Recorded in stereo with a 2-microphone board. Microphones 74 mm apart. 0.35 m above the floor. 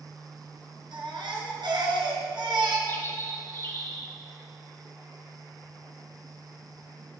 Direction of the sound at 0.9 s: 80° right.